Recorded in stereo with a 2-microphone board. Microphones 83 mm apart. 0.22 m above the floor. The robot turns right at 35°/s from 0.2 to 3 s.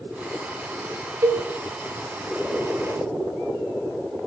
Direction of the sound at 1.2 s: 40° right (ahead or behind).